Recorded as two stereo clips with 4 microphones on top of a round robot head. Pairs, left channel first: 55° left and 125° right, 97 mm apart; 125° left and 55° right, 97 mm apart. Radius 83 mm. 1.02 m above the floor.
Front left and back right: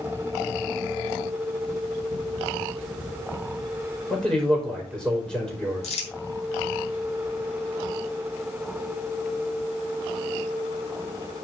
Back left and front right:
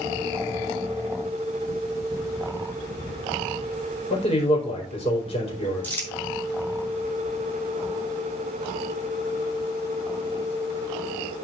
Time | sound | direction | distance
4.1 | a man speaking | 145° left | 4.5 m
5.8 | crumpling | 50° left | 6 m